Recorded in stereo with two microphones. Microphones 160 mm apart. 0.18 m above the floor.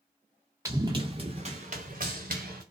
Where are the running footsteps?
20° right (ahead or behind), 0.8 m; by 2.6 s 70° right (ahead or behind), 1.3 m.